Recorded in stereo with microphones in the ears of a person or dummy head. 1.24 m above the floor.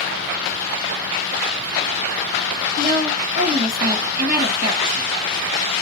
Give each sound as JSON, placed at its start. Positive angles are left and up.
{"t": 2.8, "sound": "a woman speaking", "side_deg": -50, "distance_m": 1.3}